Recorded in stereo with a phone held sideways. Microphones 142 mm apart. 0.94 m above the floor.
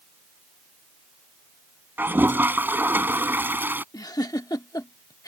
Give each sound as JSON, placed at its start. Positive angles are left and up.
{"t": 2.0, "sound": "a toilet flushing", "side_deg": -15}
{"t": 3.9, "sound": "a giggle", "side_deg": 25}